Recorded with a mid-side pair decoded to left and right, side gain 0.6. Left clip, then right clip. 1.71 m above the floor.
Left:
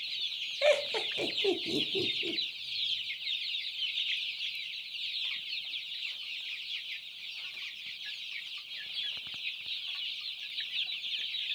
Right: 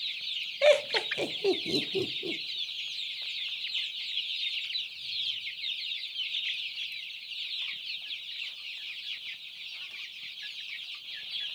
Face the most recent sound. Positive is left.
turn(degrees=-15)